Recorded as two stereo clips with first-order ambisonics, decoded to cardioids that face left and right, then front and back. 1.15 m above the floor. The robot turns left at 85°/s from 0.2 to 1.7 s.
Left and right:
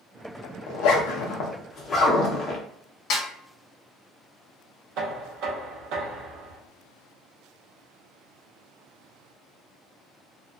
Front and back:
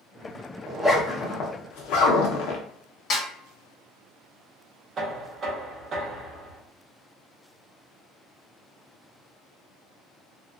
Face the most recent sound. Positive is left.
turn(degrees=-120)